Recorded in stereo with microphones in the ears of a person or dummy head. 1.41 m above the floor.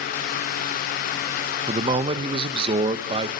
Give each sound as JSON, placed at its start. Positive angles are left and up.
{"t": 1.7, "sound": "a man speaking", "side_deg": -30, "distance_m": 0.9}